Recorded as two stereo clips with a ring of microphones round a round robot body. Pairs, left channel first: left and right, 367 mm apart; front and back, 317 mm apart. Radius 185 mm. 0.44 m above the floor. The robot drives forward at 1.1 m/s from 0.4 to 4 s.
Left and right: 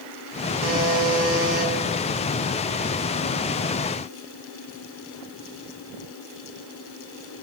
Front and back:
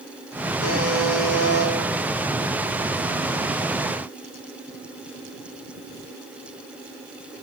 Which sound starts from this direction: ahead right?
A buzzer, at 0.6 s.